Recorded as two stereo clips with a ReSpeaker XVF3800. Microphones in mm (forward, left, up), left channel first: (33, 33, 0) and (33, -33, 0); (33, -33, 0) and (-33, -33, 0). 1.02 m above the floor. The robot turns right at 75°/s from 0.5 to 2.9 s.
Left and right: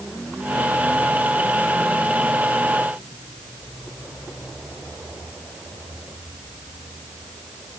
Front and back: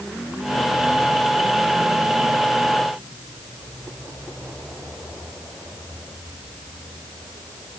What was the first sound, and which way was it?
Only background noise.